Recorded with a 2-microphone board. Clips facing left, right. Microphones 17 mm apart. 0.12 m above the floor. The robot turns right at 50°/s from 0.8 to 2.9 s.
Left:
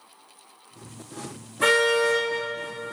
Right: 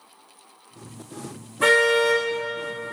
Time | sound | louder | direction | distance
1.6 | a car horn | right 2 dB | 5° right | 4.5 m